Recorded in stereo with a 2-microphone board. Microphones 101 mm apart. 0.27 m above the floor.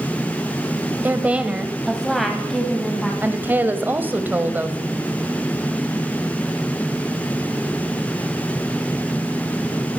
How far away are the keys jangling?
I don't hear keys jangling.